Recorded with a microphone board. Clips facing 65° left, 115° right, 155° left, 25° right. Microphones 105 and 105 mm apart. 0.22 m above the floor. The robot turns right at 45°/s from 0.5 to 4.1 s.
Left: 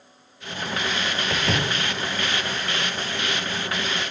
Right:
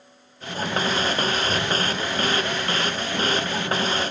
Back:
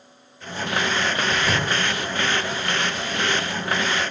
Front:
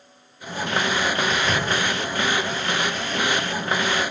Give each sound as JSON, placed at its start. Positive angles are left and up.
{"t": 1.3, "sound": "a door slam", "azimuth_deg": 65, "distance_m": 4.0}